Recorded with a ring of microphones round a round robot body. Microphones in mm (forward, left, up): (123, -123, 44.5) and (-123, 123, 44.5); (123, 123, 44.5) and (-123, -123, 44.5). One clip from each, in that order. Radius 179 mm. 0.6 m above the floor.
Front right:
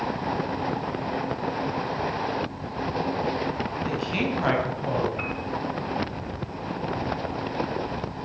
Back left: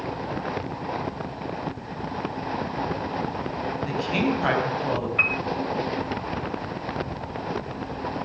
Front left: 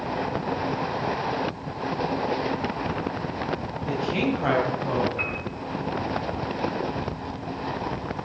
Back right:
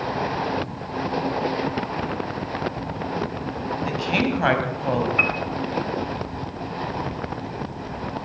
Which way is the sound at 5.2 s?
175° left.